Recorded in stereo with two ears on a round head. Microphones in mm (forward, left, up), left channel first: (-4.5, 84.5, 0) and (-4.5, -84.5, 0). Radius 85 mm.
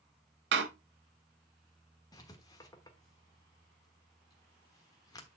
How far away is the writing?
About 1.2 m.